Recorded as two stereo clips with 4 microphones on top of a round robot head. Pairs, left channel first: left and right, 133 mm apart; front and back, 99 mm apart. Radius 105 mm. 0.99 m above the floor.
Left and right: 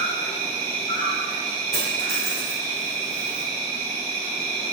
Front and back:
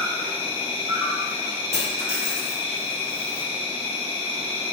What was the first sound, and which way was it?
An insect, 25° left.